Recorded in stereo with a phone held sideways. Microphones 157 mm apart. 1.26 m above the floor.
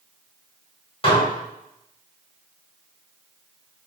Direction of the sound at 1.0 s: 35° left (ahead or behind).